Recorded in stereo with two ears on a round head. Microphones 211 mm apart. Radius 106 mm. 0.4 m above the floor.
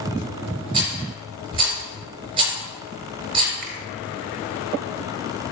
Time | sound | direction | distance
0.7 | a rattle | 25° right (ahead or behind) | 4 m
3.6 | a finger snap | 50° right (ahead or behind) | 2 m